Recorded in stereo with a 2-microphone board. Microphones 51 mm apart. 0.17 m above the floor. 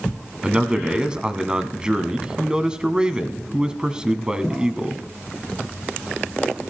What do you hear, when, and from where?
0.4 s a man speaking: 15° right (ahead or behind), 1.0 m